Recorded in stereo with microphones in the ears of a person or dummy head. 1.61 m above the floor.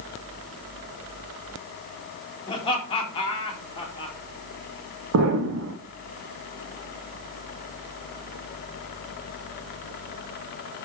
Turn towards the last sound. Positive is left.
turn(degrees=-85)